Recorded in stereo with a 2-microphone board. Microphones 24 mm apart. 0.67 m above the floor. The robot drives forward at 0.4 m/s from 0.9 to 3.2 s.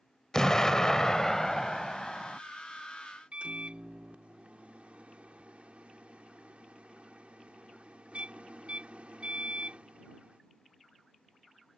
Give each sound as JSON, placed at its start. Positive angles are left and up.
{"t": 0.3, "sound": "an explosion", "side_deg": 25}
{"t": 3.3, "sound": "a microwave", "side_deg": -65}